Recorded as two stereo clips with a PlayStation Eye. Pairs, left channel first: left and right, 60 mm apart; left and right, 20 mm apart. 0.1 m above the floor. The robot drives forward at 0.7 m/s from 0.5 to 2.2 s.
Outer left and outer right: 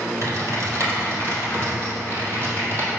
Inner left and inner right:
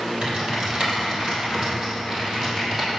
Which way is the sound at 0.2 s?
55° right (ahead or behind).